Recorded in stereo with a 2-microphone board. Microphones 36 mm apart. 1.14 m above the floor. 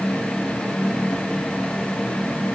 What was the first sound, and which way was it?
Only background noise.